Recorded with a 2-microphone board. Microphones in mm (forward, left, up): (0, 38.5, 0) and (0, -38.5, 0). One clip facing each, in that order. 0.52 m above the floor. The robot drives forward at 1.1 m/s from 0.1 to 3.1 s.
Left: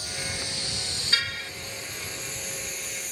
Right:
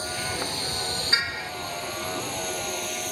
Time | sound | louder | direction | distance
0.0 | a vehicle | right 5 dB | 40° right (ahead or behind) | ?
1.1 | a car horn | right 1 dB | 25° right (ahead or behind) | ?